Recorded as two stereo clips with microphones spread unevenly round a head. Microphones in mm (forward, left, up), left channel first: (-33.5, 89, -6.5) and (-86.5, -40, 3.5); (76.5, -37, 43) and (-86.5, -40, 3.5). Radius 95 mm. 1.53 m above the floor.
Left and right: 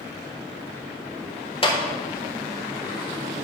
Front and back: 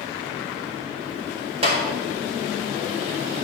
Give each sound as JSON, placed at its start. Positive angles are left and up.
{"t": 1.6, "sound": "a clap", "azimuth_deg": 115, "distance_m": 3.0}